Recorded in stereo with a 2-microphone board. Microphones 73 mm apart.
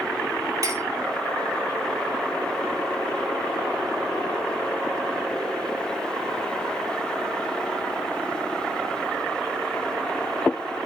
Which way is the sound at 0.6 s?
55° right (ahead or behind).